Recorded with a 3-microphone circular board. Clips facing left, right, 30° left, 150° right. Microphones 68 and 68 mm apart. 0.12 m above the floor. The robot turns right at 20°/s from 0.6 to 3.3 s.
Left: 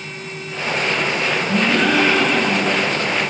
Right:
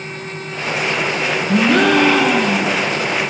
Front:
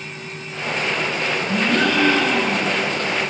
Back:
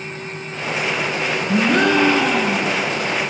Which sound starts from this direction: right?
A gasp, at 1.5 s.